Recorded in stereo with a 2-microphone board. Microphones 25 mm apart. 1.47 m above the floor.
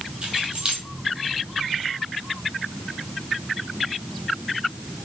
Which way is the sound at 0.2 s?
35° right (ahead or behind).